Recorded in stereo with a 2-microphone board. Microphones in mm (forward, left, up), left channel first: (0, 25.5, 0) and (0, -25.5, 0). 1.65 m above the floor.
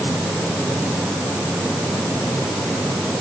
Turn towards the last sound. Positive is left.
No sound to turn to.